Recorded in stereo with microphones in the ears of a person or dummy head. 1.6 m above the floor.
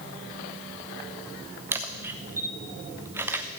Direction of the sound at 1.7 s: 10° right (ahead or behind).